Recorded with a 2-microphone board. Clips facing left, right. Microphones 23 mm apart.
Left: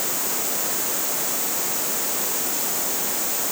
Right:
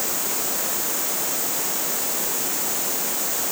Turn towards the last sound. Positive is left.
No sound to turn to.